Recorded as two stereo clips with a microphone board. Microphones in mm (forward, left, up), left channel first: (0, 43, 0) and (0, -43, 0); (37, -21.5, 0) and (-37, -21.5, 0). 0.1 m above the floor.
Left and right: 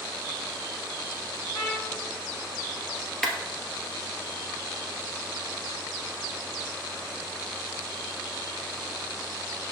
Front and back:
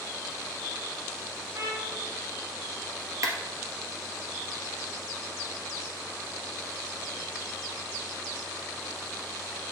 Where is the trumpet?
160° right, 4 m.